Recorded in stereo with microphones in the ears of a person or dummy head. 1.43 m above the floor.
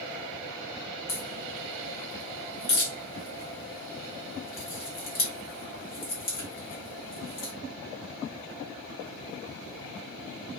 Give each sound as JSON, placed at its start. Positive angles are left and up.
{"t": 1.1, "sound": "a crack", "side_deg": 45, "distance_m": 0.9}